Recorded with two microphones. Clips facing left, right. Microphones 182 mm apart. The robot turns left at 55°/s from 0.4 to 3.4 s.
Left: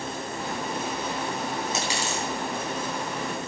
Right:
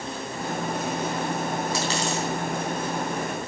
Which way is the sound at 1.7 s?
20° left (ahead or behind).